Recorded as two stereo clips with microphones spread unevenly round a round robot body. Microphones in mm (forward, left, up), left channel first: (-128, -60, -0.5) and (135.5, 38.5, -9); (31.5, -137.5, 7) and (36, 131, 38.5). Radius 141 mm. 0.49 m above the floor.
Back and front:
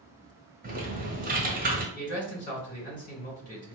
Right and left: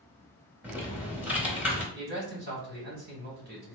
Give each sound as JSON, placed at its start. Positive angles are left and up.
{"t": 0.6, "sound": "typing on a keyboard", "azimuth_deg": 0, "distance_m": 1.2}
{"t": 1.9, "sound": "a man speaking", "azimuth_deg": 140, "distance_m": 1.7}